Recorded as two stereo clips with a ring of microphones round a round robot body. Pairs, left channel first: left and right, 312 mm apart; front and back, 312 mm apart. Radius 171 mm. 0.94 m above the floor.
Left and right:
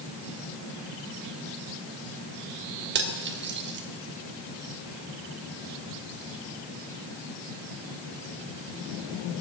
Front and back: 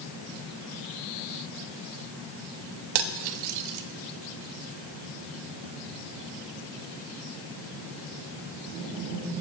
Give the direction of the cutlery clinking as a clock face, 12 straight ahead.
5 o'clock.